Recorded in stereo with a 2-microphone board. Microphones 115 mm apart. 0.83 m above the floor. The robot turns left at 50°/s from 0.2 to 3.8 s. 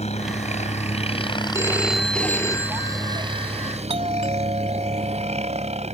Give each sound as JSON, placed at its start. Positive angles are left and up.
{"t": 0.0, "sound": "a helicopter", "azimuth_deg": 105}
{"t": 1.5, "sound": "a phone ringing", "azimuth_deg": -155}
{"t": 3.9, "sound": "a doorbell", "side_deg": -60}